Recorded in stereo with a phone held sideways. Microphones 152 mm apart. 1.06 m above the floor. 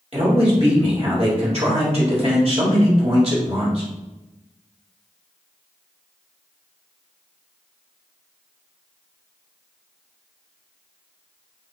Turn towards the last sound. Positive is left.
turn(degrees=-45)  # may be behind; listen again after turning